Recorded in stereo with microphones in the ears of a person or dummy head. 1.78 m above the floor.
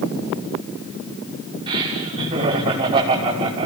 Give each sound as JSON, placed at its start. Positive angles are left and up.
{"t": 1.7, "sound": "laughter", "side_deg": -25, "distance_m": 7.0}